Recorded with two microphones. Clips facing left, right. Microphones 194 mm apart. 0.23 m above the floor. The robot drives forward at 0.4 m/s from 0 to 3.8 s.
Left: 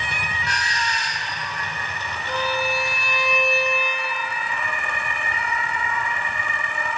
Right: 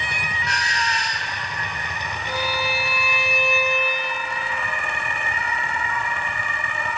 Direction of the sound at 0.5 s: 30° left (ahead or behind).